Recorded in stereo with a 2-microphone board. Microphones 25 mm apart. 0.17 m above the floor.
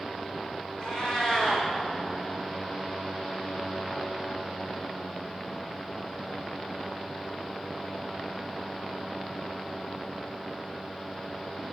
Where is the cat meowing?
40° left (ahead or behind), 4 m.